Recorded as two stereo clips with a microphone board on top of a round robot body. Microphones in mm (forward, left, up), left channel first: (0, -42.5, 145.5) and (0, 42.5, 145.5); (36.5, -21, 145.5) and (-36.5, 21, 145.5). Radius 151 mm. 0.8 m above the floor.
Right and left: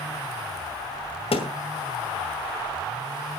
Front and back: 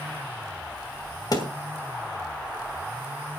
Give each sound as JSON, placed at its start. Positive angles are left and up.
{"t": 1.3, "sound": "a thud", "azimuth_deg": -80, "distance_m": 2.0}